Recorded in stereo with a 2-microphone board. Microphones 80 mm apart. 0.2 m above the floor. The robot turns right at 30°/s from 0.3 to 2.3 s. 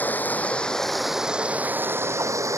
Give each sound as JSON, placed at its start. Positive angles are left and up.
{"t": 0.0, "sound": "running water", "azimuth_deg": 160}